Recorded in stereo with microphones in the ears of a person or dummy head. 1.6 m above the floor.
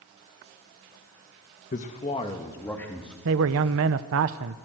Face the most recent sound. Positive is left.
turn(degrees=-75)  # may be behind; listen again after turning